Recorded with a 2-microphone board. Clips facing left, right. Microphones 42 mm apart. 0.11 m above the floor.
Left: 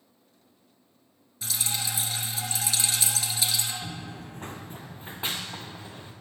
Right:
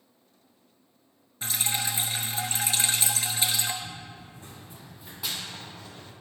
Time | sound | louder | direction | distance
1.4 | dripping | right 2 dB | 35° right (ahead or behind) | 0.9 m
3.8 | running footsteps | left 3 dB | 85° left | 0.5 m